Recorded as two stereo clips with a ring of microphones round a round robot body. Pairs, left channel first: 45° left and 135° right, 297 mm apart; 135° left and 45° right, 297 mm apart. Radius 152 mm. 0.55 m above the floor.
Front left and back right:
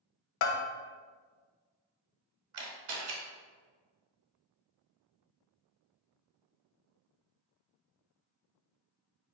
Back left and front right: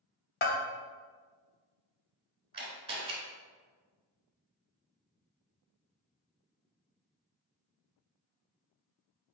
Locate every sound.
0.4 s a bell: 75° left, 0.5 m
2.5 s a camera shutter: 120° right, 1.1 m